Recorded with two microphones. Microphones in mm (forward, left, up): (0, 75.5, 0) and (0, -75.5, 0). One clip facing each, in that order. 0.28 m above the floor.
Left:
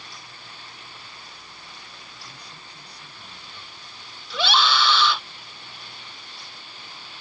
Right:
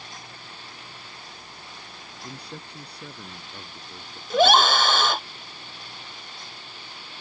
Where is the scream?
45° right (ahead or behind).